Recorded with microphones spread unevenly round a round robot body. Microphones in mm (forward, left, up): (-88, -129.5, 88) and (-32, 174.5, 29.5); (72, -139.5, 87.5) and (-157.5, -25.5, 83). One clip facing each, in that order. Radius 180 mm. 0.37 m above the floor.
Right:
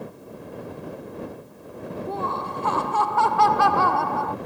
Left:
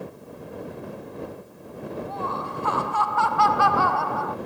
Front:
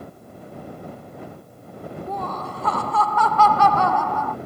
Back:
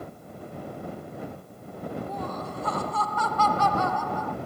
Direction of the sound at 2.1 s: 45° right.